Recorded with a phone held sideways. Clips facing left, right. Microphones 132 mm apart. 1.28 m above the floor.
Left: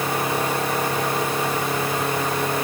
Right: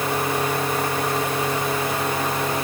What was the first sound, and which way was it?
Only background noise.